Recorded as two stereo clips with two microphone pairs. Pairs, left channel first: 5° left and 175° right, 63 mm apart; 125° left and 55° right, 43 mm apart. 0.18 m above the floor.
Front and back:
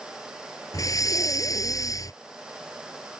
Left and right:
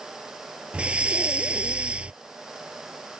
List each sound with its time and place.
0.7 s breathing: 5° left